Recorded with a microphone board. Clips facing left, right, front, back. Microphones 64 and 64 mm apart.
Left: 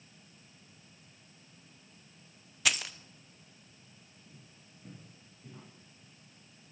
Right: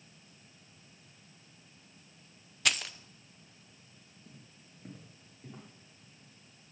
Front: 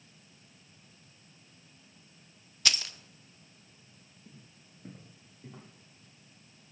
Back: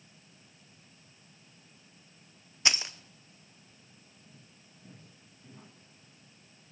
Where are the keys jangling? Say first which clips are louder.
Even, back 2 dB; 175° left, 0.5 m.